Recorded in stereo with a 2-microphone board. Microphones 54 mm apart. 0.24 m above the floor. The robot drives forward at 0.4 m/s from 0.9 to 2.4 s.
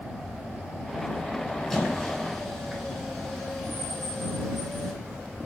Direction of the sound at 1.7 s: 5° left (ahead or behind).